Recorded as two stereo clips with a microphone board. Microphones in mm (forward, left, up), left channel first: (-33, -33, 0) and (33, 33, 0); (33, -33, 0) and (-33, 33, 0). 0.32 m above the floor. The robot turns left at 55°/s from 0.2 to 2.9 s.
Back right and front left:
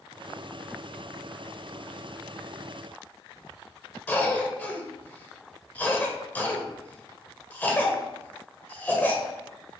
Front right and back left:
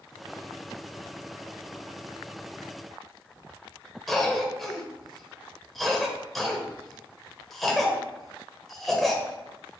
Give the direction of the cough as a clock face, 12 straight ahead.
4 o'clock.